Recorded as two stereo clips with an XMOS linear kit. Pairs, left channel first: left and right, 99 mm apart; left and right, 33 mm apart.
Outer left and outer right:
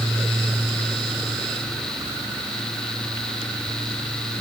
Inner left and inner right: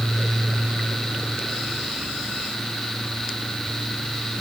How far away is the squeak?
No squeak in this recording.